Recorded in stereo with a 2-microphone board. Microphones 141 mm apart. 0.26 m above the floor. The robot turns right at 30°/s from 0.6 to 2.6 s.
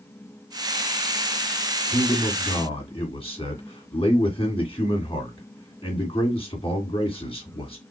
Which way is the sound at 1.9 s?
20° left (ahead or behind).